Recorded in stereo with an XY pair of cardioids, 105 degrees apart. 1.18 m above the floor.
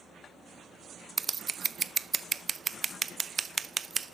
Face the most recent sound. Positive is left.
turn(degrees=-35)